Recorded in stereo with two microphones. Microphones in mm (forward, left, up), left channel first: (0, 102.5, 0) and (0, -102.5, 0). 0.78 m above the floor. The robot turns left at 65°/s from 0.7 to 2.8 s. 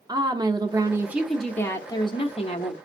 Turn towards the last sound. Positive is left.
turn(degrees=85)